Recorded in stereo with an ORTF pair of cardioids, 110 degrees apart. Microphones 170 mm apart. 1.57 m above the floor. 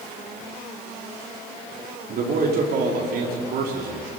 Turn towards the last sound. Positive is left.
turn(degrees=-60)